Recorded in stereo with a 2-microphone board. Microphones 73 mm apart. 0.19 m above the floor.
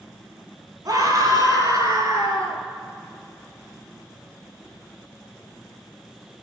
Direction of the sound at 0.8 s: 60° right (ahead or behind).